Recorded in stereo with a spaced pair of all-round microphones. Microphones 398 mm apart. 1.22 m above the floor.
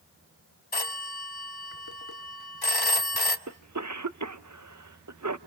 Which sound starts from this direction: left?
A phone ringing, at 0.7 s.